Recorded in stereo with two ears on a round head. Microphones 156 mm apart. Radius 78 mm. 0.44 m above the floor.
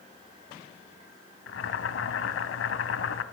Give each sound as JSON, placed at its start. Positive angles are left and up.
{"t": 1.5, "sound": "boiling", "side_deg": 80, "distance_m": 0.7}